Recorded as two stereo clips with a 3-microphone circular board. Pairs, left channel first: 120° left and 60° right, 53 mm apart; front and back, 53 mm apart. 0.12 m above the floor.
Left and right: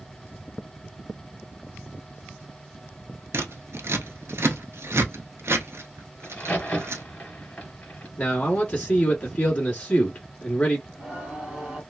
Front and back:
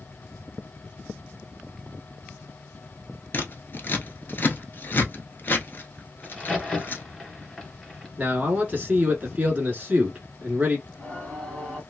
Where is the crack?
70° left, 2 m.